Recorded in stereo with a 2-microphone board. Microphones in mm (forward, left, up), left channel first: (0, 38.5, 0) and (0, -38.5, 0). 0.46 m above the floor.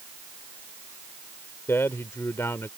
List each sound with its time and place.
1.7 s a man speaking: 35° left (ahead or behind)